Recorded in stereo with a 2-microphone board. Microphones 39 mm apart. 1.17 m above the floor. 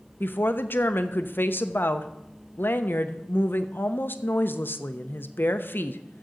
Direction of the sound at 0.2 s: 60° left (ahead or behind).